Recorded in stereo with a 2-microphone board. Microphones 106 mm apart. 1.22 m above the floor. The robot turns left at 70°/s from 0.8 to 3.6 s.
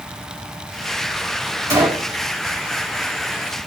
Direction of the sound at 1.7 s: 30° right (ahead or behind).